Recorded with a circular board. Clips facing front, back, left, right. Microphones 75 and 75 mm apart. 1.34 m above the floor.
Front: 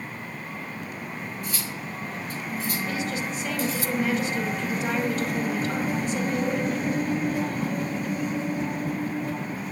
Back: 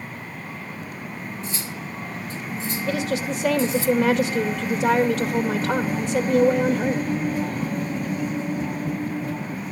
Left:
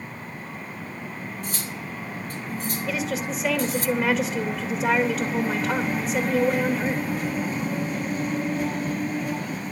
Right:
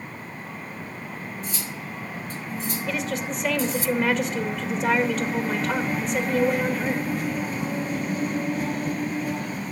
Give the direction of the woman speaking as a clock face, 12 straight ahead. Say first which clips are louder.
Back 5 dB, left 1 dB; 6 o'clock.